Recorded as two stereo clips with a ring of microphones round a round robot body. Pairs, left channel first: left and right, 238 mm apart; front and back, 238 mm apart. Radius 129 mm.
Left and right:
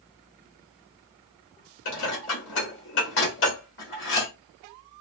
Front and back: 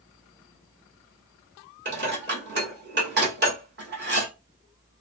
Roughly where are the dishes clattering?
Behind left.